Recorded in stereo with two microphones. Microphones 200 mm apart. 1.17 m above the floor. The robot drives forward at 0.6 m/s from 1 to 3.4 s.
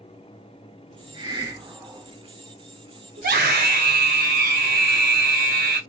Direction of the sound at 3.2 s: 55° right (ahead or behind).